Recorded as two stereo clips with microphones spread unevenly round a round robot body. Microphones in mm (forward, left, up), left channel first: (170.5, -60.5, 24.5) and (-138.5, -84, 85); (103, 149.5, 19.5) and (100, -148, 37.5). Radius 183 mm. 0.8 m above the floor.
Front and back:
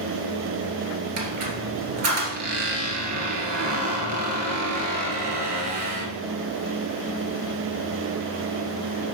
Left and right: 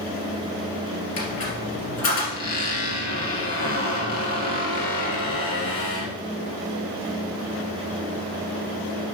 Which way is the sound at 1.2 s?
145° left.